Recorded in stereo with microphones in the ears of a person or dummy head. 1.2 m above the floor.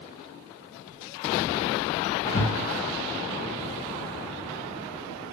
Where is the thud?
55° left (ahead or behind), 1.8 m.